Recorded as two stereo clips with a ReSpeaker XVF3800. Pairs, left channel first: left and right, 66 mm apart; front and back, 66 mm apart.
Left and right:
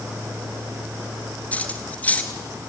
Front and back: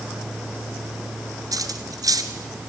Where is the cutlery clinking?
155° left, 1.7 m.